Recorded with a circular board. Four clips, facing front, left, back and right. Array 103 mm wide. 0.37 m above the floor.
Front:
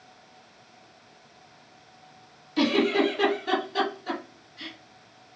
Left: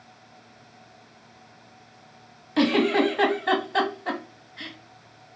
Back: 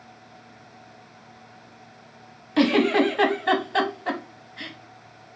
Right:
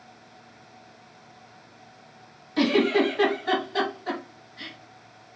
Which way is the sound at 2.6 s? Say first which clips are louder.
Even, back 4 dB; 150° left.